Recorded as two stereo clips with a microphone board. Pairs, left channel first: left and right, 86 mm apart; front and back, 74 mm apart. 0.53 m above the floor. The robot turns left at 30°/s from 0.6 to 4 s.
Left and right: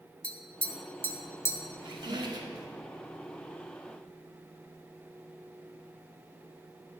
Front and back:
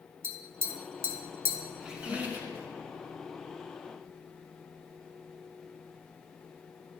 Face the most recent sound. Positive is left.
turn(degrees=-165)